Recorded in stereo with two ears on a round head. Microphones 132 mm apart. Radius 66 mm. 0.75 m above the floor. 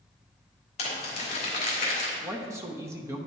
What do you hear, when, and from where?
0.8 s crumpling: 45° left (ahead or behind), 2.5 m
2.2 s a man speaking: 20° right (ahead or behind), 0.9 m